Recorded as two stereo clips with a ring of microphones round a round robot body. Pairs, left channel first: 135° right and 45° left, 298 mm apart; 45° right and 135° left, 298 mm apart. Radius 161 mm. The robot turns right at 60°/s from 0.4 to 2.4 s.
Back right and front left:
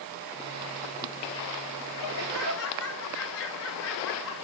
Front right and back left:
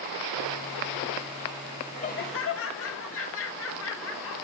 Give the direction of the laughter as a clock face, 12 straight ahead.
4 o'clock.